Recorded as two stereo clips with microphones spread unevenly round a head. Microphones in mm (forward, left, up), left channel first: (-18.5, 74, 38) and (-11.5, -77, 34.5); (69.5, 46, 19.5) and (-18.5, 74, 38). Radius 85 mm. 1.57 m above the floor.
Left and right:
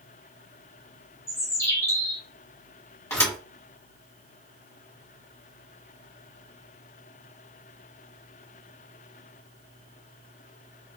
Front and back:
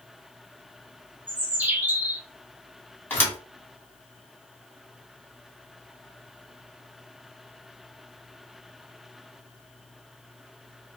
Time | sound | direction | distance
1.3 | a bird | 145° left | 0.8 m
3.1 | a thud | 45° left | 1.5 m